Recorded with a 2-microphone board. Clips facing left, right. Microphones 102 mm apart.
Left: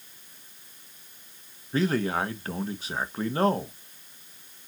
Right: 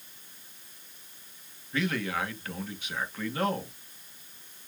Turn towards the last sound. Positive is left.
turn(degrees=35)  # may be behind; listen again after turning